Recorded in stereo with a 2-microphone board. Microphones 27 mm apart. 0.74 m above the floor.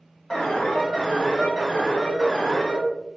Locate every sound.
0.3 s an alarm: 30° left (ahead or behind), 1.5 m